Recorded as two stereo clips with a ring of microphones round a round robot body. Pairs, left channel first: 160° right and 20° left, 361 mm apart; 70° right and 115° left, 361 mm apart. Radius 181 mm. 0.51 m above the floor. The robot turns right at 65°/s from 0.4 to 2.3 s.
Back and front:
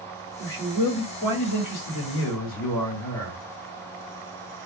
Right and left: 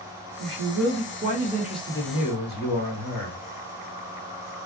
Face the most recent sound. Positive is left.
turn(degrees=-120)